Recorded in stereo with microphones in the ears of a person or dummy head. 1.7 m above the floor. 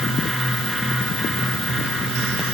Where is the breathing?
I don't hear breathing.